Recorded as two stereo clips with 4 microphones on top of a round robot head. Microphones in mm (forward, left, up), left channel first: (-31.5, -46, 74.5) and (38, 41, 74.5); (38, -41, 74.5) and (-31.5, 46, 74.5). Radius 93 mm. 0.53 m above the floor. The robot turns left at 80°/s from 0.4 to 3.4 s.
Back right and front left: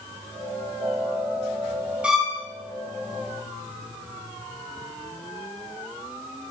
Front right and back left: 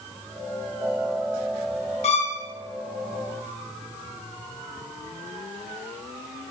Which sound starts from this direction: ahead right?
A violin, at 2.0 s.